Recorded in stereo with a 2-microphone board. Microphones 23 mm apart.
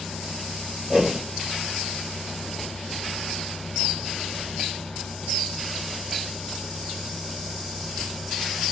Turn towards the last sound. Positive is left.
turn(degrees=-15)  # may be behind; listen again after turning